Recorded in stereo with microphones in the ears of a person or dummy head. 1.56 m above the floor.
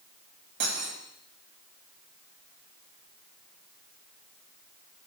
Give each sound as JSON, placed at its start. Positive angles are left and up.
{"t": 0.6, "sound": "cutlery clinking", "side_deg": -65, "distance_m": 5.0}